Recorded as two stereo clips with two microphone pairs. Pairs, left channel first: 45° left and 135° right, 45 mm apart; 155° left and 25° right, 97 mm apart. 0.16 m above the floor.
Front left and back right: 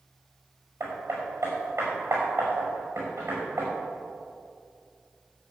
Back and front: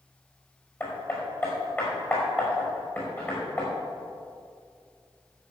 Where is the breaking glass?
No breaking glass in this recording.